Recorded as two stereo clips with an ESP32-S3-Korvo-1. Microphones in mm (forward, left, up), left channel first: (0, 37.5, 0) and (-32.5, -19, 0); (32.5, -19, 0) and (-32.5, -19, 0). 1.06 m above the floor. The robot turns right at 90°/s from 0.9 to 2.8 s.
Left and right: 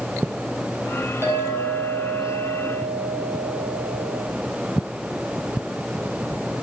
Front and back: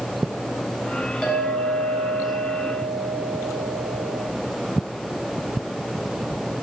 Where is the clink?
75° right, 5 m; by 4.2 s 65° left, 5 m.